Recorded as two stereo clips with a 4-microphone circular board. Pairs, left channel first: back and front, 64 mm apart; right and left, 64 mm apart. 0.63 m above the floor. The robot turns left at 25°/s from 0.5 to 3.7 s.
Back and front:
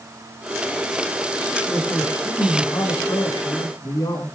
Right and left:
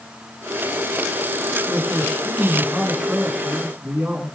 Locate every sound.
1.7 s a man speaking: 150° right, 7.5 m; by 4.3 s 160° left, 7.5 m